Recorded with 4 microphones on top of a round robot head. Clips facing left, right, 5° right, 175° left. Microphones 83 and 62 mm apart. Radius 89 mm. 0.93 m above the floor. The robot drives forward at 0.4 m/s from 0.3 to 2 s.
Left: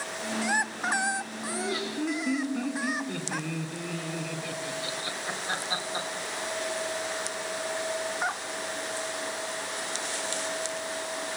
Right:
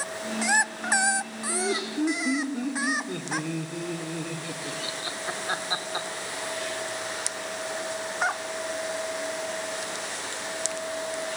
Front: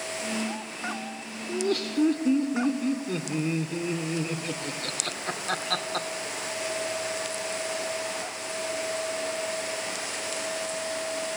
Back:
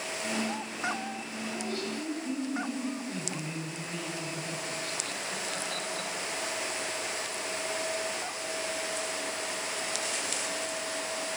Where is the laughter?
20° right, 2.5 m.